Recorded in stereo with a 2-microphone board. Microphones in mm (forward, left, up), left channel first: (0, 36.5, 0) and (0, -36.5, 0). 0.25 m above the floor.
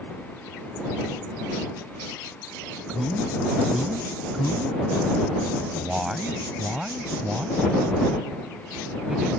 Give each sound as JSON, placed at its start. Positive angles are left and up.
{"t": 2.9, "sound": "a man speaking", "side_deg": -5}